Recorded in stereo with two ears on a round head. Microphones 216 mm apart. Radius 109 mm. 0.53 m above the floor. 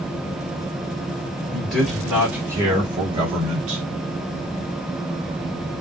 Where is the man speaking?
5° left (ahead or behind), 1.7 m; by 3.8 s 35° right (ahead or behind), 1.7 m.